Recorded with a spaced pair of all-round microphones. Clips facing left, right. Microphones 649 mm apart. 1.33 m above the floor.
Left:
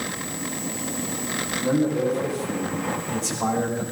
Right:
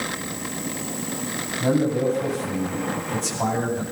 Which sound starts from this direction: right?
A man speaking, at 1.6 s.